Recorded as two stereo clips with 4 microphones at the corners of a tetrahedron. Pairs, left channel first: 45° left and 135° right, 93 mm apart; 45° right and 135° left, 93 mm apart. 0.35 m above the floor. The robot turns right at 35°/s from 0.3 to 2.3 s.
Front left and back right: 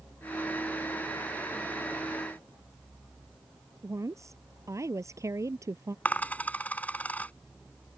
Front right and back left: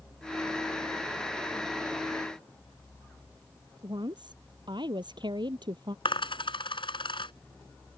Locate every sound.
3.8 s a woman speaking: 170° left
6.0 s a dropped coin: 25° right